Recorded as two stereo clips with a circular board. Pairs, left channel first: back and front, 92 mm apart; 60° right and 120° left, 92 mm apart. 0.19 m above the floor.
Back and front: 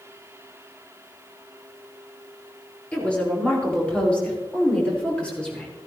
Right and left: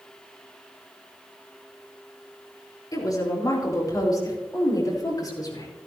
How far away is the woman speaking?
About 4.5 m.